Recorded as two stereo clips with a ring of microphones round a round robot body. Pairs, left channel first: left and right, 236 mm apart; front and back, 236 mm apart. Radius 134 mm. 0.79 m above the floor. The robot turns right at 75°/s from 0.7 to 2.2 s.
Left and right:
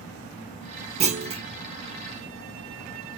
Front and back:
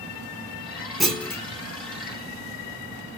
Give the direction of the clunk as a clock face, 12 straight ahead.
3 o'clock.